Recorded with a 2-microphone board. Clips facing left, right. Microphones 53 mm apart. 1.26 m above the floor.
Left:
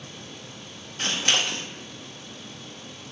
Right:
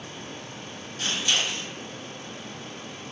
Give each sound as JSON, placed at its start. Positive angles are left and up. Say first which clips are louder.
{"t": 1.0, "sound": "scissors", "louder": "left 2 dB", "side_deg": 60, "distance_m": 0.5}